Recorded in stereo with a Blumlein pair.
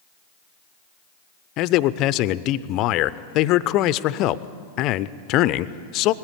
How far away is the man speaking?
About 0.6 m.